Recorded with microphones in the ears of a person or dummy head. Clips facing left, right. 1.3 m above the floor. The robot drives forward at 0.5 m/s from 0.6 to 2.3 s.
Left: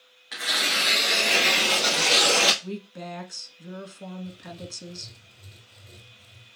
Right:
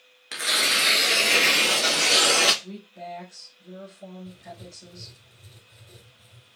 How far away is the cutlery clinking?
No cutlery clinking in this recording.